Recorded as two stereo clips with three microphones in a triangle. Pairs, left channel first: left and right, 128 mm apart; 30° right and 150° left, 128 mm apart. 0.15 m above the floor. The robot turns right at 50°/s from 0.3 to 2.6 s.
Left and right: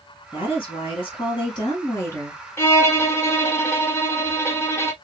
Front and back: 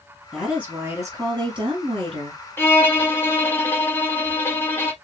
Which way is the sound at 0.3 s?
60° left.